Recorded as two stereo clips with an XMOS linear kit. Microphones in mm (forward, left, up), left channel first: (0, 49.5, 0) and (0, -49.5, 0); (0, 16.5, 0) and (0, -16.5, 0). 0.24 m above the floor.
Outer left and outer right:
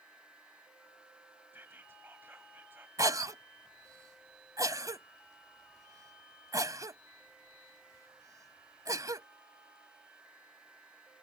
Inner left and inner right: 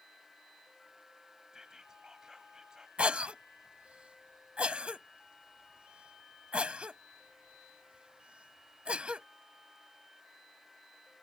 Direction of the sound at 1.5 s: 20° right (ahead or behind).